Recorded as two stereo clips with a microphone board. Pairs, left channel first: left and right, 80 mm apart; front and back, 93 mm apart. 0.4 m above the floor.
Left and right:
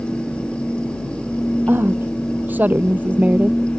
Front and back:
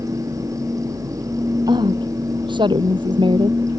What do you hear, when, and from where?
1.7 s a woman speaking: 155° right; by 3.6 s 160° right